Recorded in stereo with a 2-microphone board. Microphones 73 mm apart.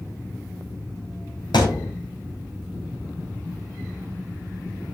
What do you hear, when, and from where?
1.5 s a thud: 85° left, 4.5 m